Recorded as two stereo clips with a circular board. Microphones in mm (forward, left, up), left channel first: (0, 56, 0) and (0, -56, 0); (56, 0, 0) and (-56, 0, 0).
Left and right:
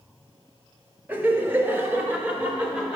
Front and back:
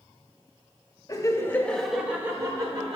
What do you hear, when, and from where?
1.1 s laughter: 25° right, 1.0 m; by 3.0 s 165° right, 1.1 m